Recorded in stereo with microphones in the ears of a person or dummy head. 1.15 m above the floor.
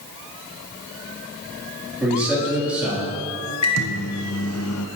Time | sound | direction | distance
2.0 | a man speaking | 15° right (ahead or behind) | 2.5 m
3.6 | a microwave | 80° left | 0.6 m